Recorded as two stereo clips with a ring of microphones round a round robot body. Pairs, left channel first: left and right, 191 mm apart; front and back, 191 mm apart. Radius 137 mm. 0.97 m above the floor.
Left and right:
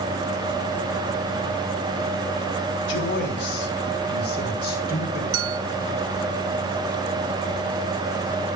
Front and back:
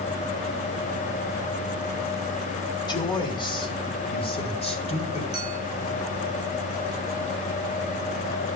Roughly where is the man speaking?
Ahead left.